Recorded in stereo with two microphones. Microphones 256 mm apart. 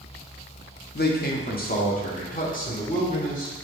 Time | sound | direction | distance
0.9 | a man speaking | 40° left (ahead or behind) | 0.9 m